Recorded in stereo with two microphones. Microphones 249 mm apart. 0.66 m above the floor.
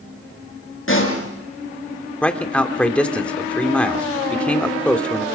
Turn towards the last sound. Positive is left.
turn(degrees=5)  # may be behind; listen again after turning